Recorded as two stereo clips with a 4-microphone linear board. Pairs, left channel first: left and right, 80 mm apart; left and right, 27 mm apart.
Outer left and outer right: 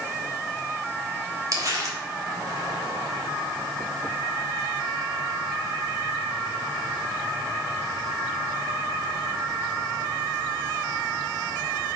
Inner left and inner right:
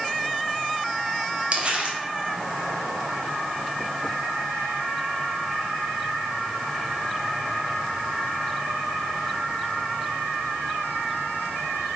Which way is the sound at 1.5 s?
45° right (ahead or behind).